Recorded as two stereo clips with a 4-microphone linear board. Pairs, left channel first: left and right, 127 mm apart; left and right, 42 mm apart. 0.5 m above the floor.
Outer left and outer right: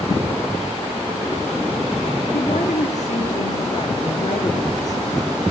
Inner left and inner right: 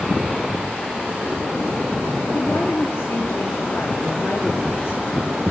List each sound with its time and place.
2.3 s a woman speaking: 80° left, 7 m